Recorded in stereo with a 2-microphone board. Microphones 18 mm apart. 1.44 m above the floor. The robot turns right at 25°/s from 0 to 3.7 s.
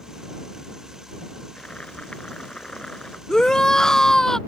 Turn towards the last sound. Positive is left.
turn(degrees=30)  # may be behind; listen again after turning